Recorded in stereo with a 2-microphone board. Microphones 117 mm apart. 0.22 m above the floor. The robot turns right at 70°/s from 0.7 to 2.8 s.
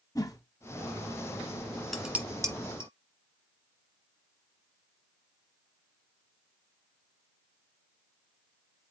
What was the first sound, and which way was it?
A whoosh, 35° left (ahead or behind).